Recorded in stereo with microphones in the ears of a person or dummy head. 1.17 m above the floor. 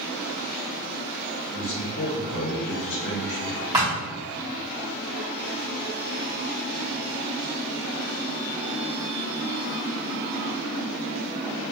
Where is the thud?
20° right (ahead or behind), 1.6 m.